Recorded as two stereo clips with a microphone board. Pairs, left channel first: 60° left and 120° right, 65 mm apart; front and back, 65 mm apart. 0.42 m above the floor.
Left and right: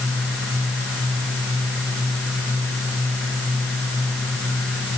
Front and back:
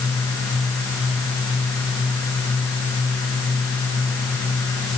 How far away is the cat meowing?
No cat meowing in this recording.